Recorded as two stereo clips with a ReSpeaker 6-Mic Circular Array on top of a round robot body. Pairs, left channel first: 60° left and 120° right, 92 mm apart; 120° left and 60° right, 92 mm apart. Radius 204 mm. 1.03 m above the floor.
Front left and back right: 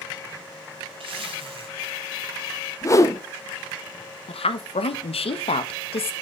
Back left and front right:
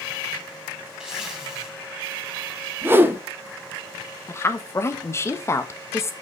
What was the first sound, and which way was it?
A zipper, 145° right.